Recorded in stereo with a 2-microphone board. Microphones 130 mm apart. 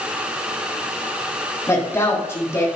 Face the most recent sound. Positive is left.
turn(degrees=25)  # may be behind; listen again after turning